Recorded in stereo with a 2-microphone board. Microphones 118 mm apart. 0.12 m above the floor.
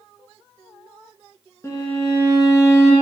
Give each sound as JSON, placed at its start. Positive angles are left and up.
{"t": 1.6, "sound": "a violin", "side_deg": 25, "distance_m": 1.4}